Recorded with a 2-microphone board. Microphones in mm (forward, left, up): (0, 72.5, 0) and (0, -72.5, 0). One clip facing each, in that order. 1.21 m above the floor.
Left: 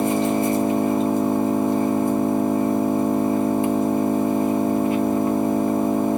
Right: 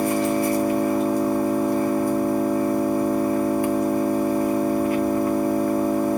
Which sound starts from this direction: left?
An engine running, at 0.0 s.